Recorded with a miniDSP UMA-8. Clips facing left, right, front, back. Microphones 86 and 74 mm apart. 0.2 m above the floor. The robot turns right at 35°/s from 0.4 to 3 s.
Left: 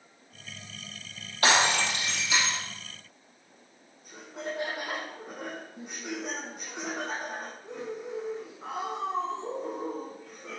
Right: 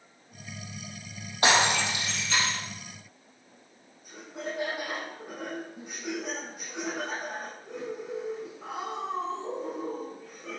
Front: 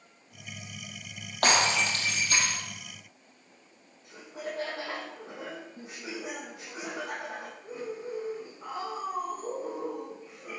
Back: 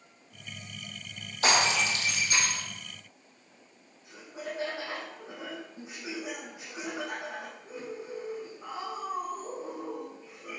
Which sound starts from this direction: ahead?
Laughter, at 4.0 s.